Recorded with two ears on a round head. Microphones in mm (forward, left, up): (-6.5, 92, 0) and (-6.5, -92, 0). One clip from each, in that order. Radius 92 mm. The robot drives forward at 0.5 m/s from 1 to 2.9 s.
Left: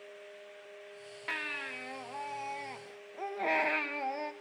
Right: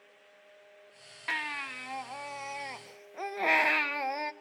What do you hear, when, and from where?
1.3 s a baby crying: 20° right (ahead or behind), 1.3 m; by 4.3 s 40° right (ahead or behind), 0.6 m